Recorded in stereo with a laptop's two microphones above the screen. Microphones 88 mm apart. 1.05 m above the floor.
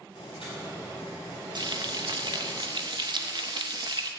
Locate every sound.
0.1 s boiling: 70° left (ahead or behind), 5.5 m
1.6 s frying: 55° right (ahead or behind), 0.6 m